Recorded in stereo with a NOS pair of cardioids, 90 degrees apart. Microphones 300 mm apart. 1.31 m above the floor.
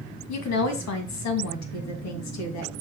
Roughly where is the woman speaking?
Ahead left.